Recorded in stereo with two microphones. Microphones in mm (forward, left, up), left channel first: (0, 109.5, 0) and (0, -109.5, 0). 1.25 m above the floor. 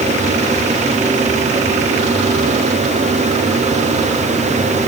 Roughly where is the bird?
No bird in this recording.